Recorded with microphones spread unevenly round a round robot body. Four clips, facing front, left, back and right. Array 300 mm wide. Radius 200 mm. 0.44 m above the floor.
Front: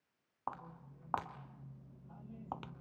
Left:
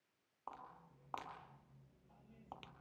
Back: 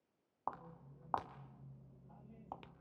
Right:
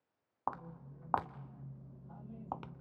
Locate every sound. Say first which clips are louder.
0.5 s footsteps: right 12 dB, front 1 dB; 70° right, 1.7 m; by 2.8 s 45° right, 0.7 m